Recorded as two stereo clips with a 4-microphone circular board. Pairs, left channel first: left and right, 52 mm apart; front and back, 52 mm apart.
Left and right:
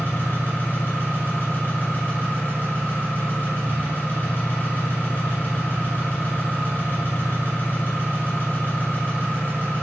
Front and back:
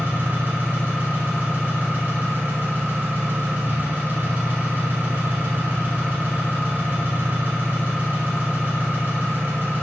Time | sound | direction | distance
0.0 | an engine running | 130° left | 1.6 m